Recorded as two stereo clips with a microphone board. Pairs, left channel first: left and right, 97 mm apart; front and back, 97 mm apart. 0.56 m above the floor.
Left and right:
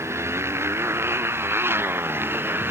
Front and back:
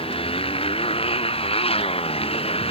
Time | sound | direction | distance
0.0 | a motorcycle | 25° right | ?